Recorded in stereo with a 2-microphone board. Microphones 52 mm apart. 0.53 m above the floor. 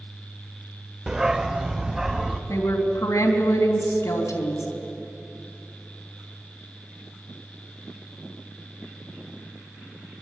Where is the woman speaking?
75° left (ahead or behind), 3.5 m.